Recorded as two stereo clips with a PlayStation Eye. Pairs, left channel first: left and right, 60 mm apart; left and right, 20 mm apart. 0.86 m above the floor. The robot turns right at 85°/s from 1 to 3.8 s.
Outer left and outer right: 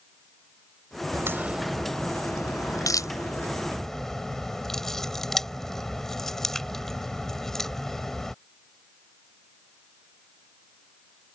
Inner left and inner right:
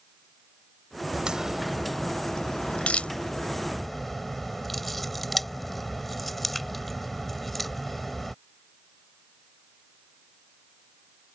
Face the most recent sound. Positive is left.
turn(degrees=10)  # may be behind; listen again after turning